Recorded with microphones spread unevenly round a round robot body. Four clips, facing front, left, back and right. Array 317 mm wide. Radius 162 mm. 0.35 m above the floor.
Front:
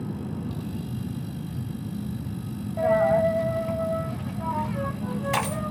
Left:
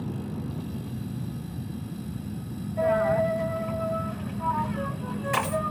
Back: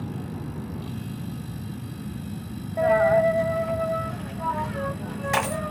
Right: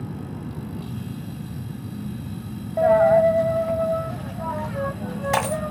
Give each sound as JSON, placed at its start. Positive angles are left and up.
{"t": 2.8, "sound": "a dropped coin", "azimuth_deg": -105, "distance_m": 1.6}